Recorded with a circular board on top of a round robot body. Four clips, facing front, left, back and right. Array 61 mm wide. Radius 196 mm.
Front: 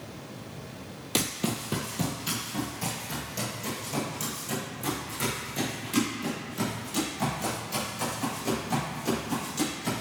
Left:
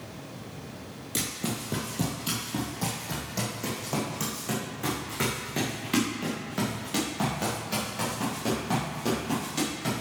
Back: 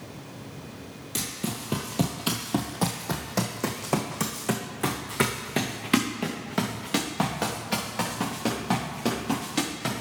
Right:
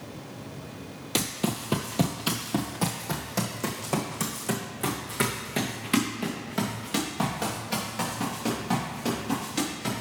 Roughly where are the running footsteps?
Ahead right.